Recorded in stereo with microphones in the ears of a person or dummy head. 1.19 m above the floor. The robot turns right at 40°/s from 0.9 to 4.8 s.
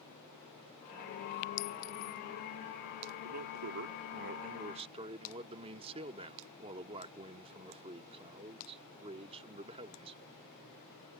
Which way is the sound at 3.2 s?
90° right.